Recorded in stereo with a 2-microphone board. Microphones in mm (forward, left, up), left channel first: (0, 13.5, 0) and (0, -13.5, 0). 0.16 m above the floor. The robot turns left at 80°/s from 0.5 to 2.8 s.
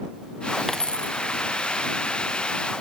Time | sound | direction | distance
0.7 | a dropped coin | 160° left | ?